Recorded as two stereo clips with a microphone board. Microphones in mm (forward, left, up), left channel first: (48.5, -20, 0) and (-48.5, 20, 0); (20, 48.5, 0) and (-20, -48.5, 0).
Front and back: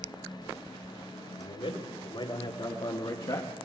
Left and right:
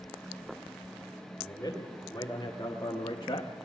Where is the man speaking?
Straight ahead, 3.5 m; by 3.5 s 30° left, 1.1 m.